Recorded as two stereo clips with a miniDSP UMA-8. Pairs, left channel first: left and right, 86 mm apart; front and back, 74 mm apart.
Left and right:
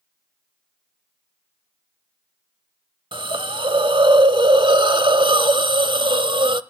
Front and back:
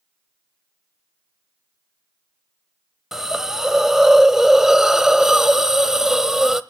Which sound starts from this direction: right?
A hiss, at 3.1 s.